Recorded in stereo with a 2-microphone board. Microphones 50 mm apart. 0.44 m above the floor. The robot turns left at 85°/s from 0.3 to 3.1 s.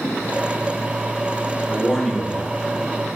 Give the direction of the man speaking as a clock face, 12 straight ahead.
5 o'clock.